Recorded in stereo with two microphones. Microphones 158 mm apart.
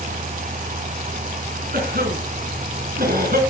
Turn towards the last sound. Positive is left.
turn(degrees=-75)  # may be behind; listen again after turning